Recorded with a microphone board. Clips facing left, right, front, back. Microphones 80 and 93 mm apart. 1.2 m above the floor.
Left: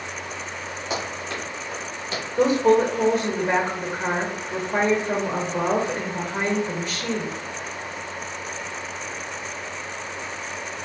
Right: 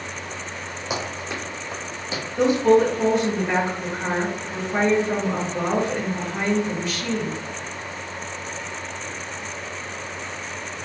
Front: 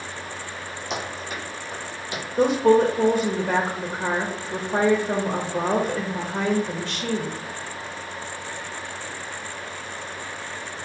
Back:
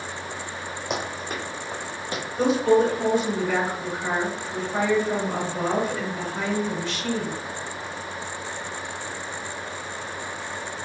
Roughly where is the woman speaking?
Ahead left.